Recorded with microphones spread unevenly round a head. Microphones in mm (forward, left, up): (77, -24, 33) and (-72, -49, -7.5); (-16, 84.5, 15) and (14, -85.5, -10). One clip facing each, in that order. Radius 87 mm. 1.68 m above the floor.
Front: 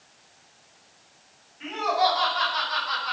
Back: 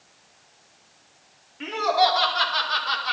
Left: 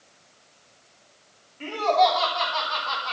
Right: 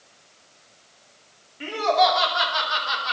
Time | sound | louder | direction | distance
1.6 | laughter | back 3 dB, even | 160° right | 6.5 m